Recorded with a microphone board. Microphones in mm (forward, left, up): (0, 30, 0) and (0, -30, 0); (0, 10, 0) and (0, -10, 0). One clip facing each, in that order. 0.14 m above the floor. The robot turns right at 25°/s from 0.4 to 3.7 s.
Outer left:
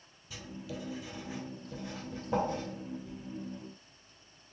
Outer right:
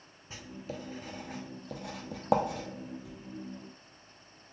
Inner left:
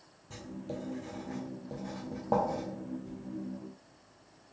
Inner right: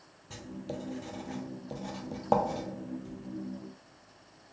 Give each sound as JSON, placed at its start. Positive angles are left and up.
{"t": 0.3, "sound": "writing", "side_deg": -30, "distance_m": 0.8}